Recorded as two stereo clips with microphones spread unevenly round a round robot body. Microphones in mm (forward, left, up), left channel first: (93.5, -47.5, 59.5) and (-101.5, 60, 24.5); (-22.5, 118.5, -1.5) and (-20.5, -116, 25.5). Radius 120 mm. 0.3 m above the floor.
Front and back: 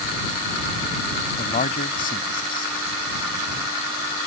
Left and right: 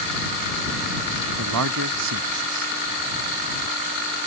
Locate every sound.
1.4 s a man speaking: 85° right